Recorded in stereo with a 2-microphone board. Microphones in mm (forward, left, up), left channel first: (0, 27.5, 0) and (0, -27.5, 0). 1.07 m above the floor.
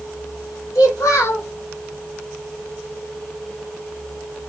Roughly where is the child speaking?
Left.